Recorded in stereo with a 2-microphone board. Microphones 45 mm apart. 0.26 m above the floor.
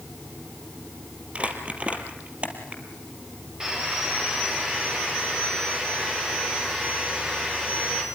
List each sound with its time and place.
1.4 s crumpling: 30° right (ahead or behind), 3 m
3.6 s sawing: 20° right (ahead or behind), 7.5 m